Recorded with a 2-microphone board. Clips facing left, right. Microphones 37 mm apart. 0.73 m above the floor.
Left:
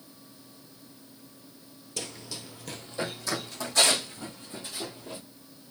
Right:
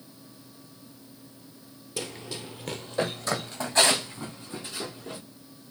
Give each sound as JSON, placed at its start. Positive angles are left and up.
{"t": 2.0, "sound": "running footsteps", "side_deg": -15, "distance_m": 0.8}